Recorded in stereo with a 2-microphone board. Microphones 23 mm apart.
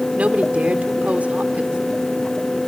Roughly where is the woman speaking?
Right.